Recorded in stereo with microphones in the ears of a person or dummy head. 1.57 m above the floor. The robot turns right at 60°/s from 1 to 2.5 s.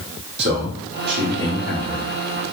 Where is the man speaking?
50° right, 1.8 m; by 2.2 s 20° left, 1.8 m.